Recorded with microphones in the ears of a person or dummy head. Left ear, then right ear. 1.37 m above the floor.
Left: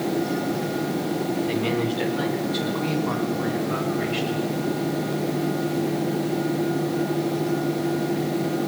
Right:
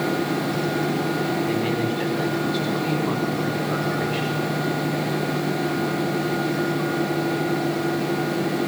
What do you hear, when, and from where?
1.5 s a man speaking: 15° left (ahead or behind), 4.5 m; by 4.4 s centre (ahead or behind), 8.5 m